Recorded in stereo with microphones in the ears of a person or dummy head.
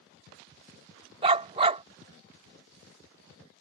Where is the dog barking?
25° right (ahead or behind).